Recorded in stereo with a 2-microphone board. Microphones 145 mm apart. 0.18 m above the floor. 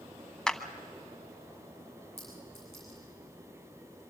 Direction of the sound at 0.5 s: 5° left (ahead or behind).